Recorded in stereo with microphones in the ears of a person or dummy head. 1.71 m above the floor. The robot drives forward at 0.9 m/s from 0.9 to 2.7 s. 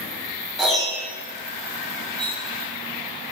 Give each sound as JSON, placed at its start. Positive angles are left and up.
{"t": 0.6, "sound": "a piano", "side_deg": 0, "distance_m": 1.8}
{"t": 2.2, "sound": "cutlery clinking", "side_deg": 5, "distance_m": 0.8}